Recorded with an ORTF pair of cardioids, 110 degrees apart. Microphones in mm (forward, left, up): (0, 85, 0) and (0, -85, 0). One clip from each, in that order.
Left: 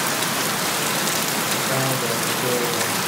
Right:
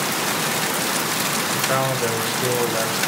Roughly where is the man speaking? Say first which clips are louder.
Right 1 dB; ahead right.